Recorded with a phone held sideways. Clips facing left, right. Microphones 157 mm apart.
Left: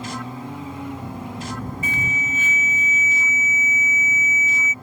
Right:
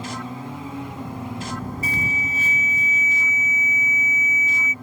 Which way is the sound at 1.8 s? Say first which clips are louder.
Even; 40° right (ahead or behind).